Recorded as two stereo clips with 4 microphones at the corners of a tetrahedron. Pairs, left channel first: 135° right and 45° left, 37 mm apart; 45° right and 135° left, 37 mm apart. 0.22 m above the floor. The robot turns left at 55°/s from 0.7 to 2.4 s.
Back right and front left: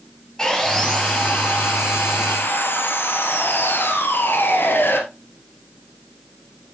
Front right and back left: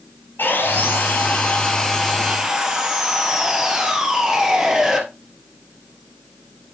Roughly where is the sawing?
Ahead right.